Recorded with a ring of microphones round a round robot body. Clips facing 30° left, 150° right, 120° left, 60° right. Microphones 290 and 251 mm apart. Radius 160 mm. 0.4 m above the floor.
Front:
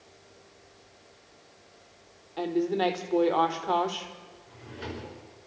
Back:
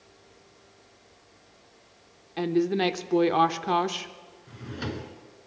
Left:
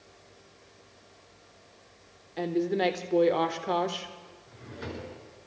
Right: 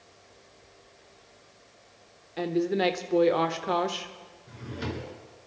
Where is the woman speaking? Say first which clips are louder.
Back 3 dB, right 1 dB; 145° right, 1.0 m.